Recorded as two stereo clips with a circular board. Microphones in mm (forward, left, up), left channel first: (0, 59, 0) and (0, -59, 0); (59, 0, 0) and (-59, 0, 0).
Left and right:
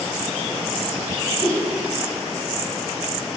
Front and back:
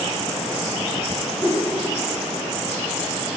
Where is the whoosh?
45° right, 0.8 m.